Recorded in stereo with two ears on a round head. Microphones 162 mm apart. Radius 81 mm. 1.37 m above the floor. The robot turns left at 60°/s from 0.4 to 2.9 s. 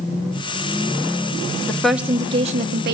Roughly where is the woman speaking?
Ahead.